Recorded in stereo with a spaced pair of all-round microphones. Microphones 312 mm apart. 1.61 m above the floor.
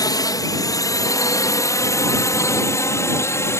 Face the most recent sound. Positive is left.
turn(degrees=10)  # may be behind; listen again after turning